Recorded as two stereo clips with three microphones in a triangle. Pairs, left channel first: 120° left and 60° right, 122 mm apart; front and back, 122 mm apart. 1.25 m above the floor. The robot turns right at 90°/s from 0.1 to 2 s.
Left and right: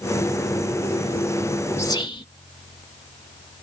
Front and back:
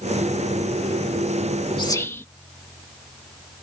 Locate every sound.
1.8 s whispering: 50° left; by 2.2 s 70° left